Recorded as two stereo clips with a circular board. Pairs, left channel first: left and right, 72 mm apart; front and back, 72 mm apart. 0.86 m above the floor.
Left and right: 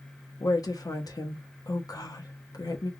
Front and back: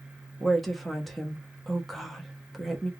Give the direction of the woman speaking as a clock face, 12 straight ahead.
9 o'clock.